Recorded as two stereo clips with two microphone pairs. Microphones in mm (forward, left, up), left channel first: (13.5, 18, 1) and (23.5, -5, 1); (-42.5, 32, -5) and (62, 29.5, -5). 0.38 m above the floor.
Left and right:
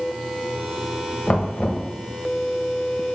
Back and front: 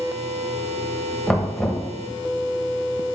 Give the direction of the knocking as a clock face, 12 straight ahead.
9 o'clock.